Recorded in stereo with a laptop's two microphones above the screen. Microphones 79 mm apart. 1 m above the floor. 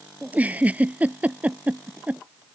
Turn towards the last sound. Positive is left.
turn(degrees=-20)  # may be behind; listen again after turning